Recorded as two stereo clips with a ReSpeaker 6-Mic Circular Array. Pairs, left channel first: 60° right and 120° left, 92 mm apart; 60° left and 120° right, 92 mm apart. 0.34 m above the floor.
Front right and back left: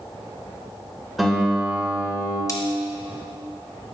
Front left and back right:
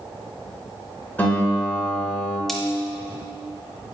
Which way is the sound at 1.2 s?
35° left.